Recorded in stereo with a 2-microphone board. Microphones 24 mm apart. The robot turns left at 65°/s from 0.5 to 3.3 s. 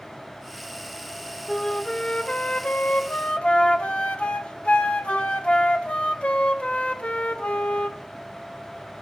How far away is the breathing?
No breathing in this recording.